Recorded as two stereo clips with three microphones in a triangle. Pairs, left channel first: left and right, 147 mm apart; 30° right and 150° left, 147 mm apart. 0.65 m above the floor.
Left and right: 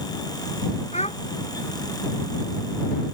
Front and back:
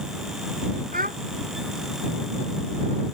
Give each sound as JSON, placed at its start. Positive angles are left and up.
{"t": 0.9, "sound": "a child speaking", "azimuth_deg": 135}